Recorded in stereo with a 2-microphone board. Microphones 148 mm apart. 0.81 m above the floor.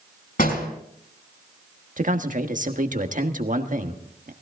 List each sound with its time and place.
0.4 s a door slam: 70° left (ahead or behind), 6 m
2.0 s a man speaking: 60° right (ahead or behind), 1.4 m